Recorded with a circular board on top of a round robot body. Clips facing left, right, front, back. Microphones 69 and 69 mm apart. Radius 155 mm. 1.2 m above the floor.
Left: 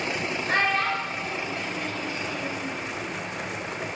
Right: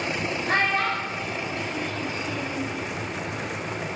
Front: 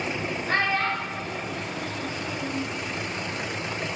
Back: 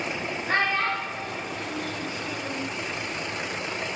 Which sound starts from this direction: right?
A child speaking, at 0.5 s.